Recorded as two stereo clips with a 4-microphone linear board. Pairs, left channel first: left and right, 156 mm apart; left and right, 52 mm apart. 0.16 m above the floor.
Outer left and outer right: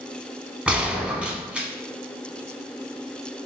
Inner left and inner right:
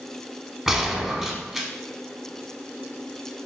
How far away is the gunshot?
About 0.7 m.